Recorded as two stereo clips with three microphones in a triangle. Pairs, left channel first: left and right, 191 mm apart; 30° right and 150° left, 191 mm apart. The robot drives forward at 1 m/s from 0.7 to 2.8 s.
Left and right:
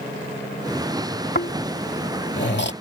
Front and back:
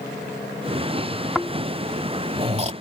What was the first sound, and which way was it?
Snoring, 65° left.